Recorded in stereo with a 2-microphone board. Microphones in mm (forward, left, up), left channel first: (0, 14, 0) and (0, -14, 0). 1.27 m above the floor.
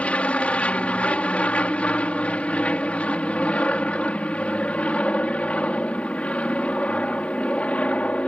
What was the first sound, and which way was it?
An aircraft, 50° left (ahead or behind).